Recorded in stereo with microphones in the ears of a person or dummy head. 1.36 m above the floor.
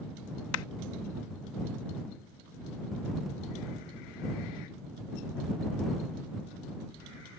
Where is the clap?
85° left.